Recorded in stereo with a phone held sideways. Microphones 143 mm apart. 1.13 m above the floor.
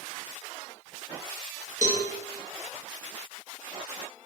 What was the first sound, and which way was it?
A cowbell, 60° left (ahead or behind).